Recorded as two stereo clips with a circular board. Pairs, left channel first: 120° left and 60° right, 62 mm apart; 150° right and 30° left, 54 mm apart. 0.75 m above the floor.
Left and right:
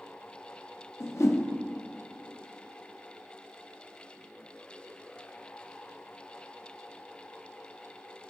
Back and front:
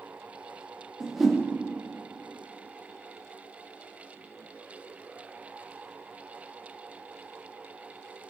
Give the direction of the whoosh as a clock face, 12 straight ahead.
8 o'clock.